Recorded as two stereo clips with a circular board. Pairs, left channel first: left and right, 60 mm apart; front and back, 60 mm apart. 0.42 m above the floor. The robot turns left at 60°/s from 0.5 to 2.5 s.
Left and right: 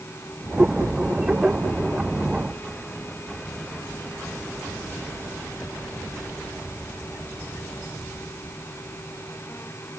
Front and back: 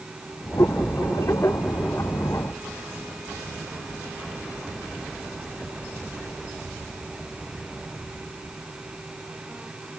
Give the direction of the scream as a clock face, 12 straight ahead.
I don't hear a scream.